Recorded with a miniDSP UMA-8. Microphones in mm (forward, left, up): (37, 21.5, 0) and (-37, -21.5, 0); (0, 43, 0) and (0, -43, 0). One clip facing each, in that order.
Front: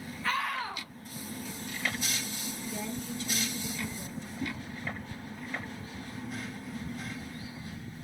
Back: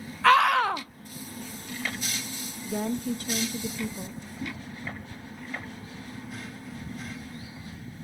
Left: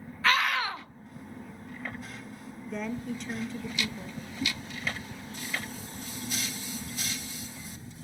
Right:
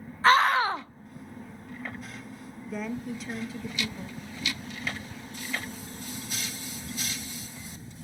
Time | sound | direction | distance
0.2 | a scream | 145° right | 0.9 m
2.6 | a woman speaking | 175° right | 1.1 m
4.4 | a whoosh | 130° left | 4 m